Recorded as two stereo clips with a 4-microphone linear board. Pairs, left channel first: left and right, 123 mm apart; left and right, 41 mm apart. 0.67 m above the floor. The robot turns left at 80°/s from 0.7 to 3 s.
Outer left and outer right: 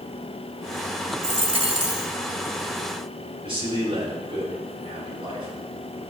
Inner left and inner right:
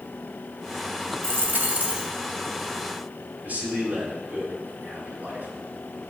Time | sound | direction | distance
1.2 | a dropped coin | 90° right | 1.8 m
3.4 | a man speaking | 50° right (ahead or behind) | 5.5 m